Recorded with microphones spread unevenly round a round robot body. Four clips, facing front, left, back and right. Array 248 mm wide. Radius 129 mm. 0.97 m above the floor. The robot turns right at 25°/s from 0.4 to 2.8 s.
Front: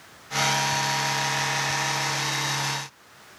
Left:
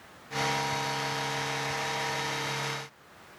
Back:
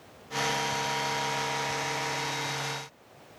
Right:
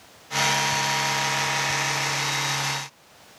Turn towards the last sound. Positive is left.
No sound to turn to.